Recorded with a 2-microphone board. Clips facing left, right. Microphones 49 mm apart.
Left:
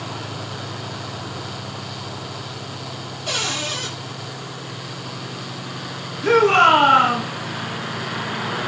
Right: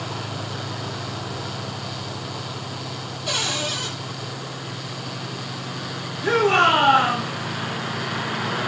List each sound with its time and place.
3.3 s a cupboard door: 35° left (ahead or behind), 6.5 m
6.2 s a shout: 45° left (ahead or behind), 4 m